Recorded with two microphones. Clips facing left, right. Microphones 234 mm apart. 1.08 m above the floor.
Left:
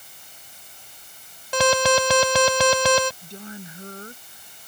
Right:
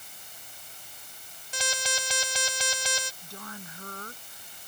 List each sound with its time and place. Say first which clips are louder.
1.5 s an alarm: left 18 dB; 80° left
3.2 s a woman speaking: left 6 dB; 25° left (ahead or behind)